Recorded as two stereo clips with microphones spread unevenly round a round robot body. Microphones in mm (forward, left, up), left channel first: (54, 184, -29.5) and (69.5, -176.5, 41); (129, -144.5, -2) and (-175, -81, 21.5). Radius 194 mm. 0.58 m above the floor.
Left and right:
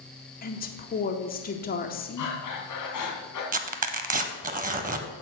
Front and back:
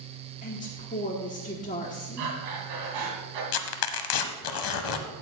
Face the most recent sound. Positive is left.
turn(degrees=-20)